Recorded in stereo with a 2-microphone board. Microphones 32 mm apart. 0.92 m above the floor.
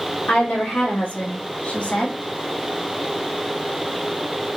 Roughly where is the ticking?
I don't hear ticking.